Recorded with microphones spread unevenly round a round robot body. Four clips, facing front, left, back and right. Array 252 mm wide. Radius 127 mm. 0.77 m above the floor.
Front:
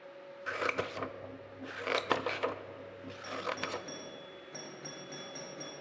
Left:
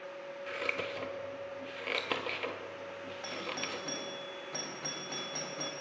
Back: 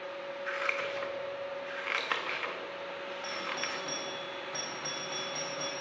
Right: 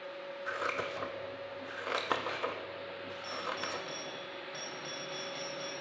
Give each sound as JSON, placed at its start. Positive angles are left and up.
{"t": 0.5, "sound": "scissors", "azimuth_deg": 15, "distance_m": 0.6}
{"t": 3.2, "sound": "a doorbell", "azimuth_deg": 90, "distance_m": 1.4}